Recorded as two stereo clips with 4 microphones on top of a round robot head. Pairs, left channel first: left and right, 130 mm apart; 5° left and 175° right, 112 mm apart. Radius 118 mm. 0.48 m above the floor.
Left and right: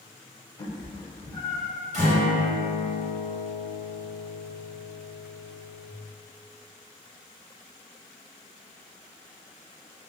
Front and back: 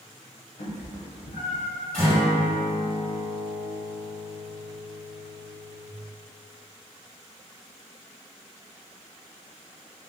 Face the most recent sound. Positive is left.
turn(degrees=-80)